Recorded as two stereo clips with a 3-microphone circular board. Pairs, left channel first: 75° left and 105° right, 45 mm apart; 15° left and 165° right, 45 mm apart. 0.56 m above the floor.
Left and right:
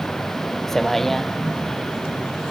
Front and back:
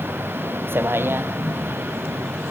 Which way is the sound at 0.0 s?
160° left.